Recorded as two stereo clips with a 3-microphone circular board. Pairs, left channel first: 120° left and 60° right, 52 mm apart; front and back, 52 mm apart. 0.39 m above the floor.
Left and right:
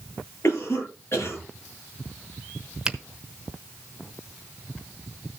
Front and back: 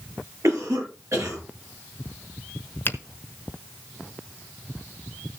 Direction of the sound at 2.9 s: 10° left.